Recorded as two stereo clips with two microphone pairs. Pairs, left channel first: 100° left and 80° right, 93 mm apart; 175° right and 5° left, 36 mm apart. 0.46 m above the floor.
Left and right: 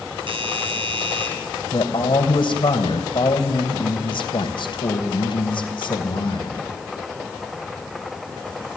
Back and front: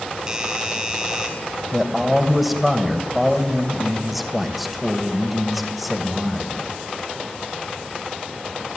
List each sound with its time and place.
0.3 s a doorbell: 70° right, 3.5 m
1.7 s a man speaking: 85° left, 2.5 m